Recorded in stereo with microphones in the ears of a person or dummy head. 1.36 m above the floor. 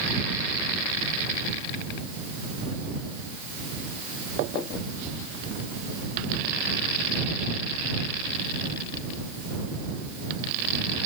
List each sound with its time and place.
Only background noise.